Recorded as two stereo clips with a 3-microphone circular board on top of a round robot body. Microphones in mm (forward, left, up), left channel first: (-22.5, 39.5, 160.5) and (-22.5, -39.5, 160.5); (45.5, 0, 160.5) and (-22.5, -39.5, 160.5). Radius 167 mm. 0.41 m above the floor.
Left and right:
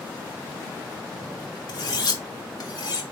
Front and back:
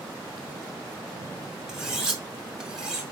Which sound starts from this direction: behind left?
Cutlery clinking, at 1.7 s.